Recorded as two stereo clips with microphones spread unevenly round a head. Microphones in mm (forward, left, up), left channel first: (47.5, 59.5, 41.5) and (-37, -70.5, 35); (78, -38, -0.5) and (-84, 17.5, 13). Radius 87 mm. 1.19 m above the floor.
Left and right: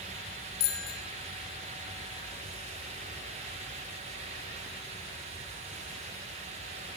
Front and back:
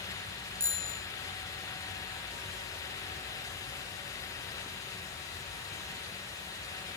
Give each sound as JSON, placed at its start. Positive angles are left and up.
{"t": 0.6, "sound": "a bicycle bell", "azimuth_deg": 85, "distance_m": 5.5}